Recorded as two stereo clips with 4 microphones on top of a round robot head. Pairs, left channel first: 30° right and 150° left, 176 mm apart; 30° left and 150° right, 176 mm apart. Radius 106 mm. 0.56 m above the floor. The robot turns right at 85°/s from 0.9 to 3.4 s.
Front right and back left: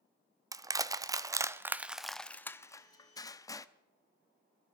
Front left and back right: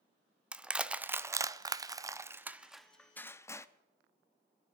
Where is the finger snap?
I don't hear a finger snap.